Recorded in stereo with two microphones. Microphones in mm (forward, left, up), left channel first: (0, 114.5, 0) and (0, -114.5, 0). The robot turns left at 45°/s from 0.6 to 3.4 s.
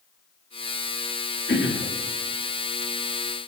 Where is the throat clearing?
50° left (ahead or behind), 1.2 m; by 1.9 s 45° left (ahead or behind), 1.2 m.